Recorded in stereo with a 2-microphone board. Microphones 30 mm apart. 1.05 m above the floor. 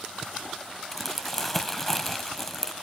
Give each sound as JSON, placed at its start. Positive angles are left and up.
{"t": 0.9, "sound": "crumpling", "side_deg": 15, "distance_m": 1.3}